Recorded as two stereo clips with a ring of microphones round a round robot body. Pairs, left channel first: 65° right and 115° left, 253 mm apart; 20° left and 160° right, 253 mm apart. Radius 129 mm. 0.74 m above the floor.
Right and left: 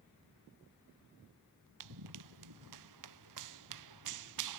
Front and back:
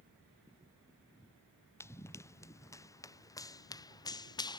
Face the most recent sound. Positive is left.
turn(degrees=95)